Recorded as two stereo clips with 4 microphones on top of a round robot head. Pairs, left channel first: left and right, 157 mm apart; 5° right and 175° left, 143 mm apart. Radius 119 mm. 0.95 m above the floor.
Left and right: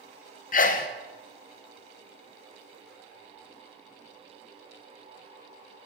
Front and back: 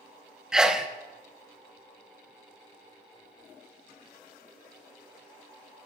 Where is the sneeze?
90° left, 0.6 m.